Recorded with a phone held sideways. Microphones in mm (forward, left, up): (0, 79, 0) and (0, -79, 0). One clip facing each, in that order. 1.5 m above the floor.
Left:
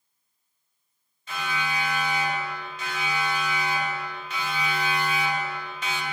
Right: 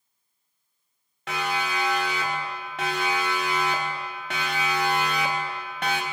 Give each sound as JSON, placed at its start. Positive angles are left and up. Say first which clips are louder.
{"t": 1.3, "sound": "a siren", "louder": "right 3 dB", "side_deg": -85, "distance_m": 6.5}